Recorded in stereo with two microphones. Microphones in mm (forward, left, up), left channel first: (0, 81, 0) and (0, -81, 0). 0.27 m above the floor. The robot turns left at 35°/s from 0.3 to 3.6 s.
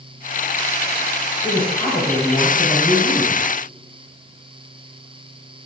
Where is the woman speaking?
85° left, 1.1 m; by 3.4 s 15° left, 1.1 m.